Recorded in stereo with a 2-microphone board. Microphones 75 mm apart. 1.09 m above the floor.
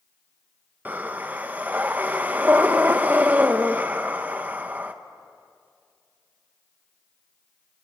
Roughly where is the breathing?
Right.